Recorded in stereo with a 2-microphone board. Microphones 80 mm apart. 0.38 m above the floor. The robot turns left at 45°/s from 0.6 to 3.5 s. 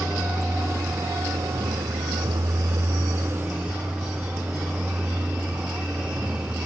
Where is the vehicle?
30° right; by 6.7 s 160° right.